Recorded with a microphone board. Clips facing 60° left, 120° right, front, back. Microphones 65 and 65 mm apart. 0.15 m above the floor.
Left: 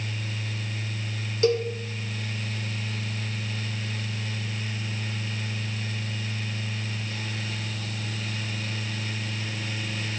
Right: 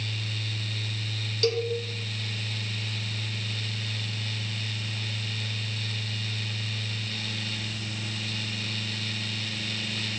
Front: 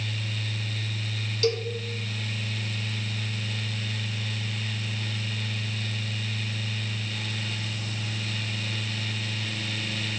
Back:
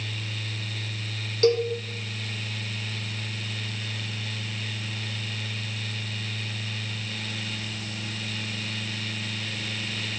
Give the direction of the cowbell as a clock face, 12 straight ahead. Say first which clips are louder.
Left 4 dB, back 5 dB; 8 o'clock.